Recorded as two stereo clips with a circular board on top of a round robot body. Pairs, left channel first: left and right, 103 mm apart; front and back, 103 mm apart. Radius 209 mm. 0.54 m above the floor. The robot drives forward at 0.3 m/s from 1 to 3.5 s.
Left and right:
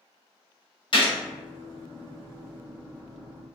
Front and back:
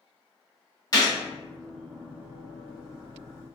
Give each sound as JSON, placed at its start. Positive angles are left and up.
{"t": 0.9, "sound": "a gunshot", "azimuth_deg": 50, "distance_m": 1.5}